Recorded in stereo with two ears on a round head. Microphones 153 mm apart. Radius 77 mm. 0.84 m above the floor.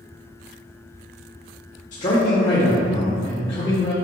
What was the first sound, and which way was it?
A man speaking, 45° left (ahead or behind).